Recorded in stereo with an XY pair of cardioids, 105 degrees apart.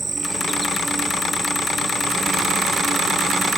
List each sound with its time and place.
0.0 s an insect: 15° right